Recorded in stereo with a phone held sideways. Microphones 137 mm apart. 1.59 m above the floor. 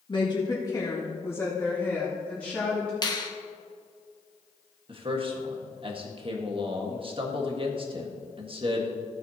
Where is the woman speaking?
35° left (ahead or behind), 1.9 m; by 2.9 s 5° left (ahead or behind), 3 m.